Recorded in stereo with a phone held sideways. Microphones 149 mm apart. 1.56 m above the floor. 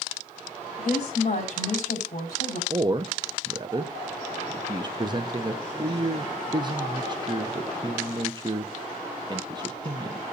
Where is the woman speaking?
50° left (ahead or behind), 5.5 m; by 2.6 s 65° left (ahead or behind), 5 m.